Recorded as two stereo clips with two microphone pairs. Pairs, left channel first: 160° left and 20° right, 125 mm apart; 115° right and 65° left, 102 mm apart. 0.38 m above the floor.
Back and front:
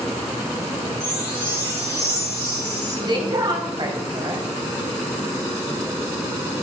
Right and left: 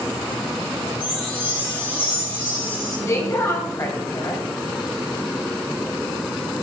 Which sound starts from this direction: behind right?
A chime, at 1.0 s.